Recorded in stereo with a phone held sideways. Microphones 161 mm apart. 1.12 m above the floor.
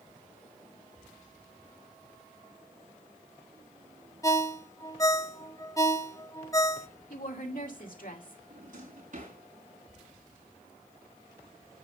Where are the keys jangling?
No keys jangling in this recording.